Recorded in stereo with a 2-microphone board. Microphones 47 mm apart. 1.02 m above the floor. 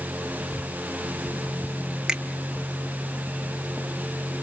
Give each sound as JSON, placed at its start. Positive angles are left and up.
{"t": 2.1, "sound": "a finger snap", "side_deg": -15, "distance_m": 1.4}